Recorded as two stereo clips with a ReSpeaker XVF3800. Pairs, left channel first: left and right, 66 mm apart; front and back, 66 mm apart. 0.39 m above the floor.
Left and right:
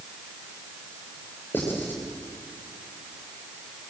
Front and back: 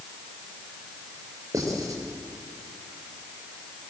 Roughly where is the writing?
Behind left.